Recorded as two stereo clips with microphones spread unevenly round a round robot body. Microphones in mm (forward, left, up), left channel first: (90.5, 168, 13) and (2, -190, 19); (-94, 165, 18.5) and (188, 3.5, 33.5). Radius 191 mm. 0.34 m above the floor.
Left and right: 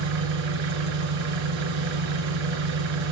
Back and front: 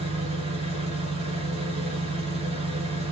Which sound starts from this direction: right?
An engine running, at 0.0 s.